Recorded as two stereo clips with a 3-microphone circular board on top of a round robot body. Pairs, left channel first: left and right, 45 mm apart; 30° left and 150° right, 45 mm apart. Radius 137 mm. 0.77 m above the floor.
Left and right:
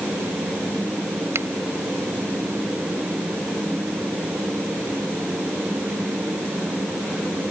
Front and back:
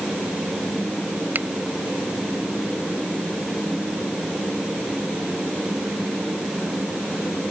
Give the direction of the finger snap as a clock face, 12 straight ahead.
4 o'clock.